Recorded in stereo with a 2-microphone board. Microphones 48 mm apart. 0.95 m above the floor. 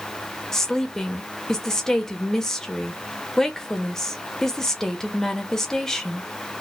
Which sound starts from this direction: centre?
A woman speaking, at 0.5 s.